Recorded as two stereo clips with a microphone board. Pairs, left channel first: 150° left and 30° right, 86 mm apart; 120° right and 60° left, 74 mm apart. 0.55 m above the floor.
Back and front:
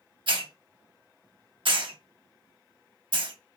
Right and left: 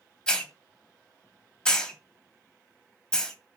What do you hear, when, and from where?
0.3 s a hiss: 40° right, 0.9 m